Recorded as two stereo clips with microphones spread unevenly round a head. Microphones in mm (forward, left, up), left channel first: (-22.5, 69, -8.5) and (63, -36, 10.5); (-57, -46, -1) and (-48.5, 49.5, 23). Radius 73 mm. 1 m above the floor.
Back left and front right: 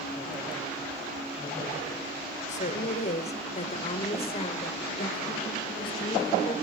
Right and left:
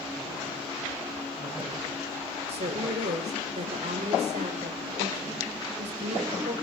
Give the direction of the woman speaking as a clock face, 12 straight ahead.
9 o'clock.